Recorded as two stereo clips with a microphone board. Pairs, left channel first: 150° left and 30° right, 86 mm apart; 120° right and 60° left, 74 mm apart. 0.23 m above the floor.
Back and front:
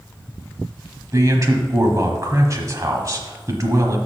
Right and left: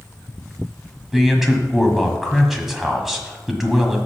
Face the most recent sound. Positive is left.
turn(degrees=-25)